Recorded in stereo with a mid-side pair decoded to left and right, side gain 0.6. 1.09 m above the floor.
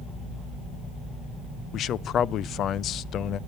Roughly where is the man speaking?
Ahead left.